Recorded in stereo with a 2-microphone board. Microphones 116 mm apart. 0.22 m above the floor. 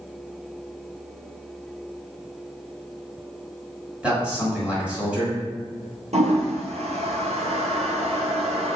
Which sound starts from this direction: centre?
A man speaking, at 4.0 s.